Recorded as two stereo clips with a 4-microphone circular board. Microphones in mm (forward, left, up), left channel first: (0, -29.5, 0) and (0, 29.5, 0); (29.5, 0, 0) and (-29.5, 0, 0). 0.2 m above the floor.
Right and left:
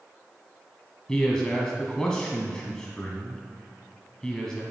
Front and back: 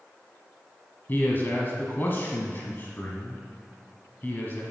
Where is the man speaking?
20° right, 1.3 m.